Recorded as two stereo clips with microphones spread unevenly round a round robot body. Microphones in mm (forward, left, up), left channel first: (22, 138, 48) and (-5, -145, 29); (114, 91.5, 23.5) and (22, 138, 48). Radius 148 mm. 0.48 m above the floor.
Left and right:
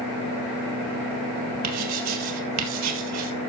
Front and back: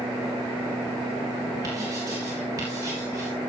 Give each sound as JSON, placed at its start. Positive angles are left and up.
{"t": 1.6, "sound": "writing", "azimuth_deg": -130, "distance_m": 3.5}